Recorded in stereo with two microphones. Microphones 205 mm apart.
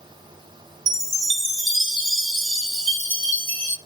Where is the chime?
80° right, 0.6 m.